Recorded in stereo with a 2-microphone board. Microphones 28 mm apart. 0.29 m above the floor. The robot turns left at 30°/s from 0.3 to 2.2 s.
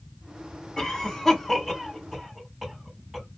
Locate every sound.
0.8 s a cough: 20° left (ahead or behind), 2.5 m; by 3.3 s 20° right (ahead or behind), 2.5 m